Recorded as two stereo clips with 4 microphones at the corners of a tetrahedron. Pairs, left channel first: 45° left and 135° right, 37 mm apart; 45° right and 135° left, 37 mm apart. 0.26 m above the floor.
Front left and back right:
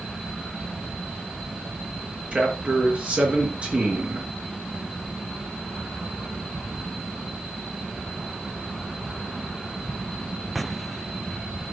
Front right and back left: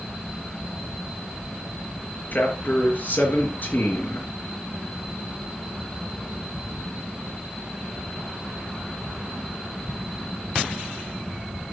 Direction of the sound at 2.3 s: 85° right.